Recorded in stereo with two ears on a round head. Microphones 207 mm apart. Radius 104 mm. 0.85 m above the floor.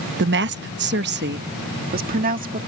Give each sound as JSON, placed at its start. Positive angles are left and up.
{"t": 0.2, "sound": "a woman speaking", "side_deg": -50}